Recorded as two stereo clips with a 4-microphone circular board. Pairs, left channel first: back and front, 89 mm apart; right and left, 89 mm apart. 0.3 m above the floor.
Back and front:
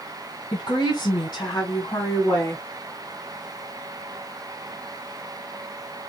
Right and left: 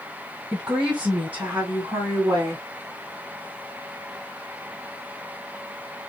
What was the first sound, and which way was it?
A woman speaking, 175° left.